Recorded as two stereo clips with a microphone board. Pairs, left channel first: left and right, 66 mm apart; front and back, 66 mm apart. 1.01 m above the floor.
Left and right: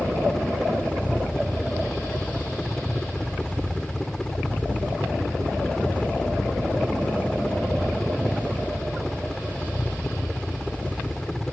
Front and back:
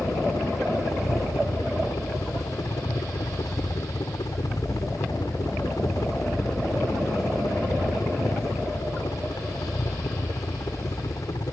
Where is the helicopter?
10° left.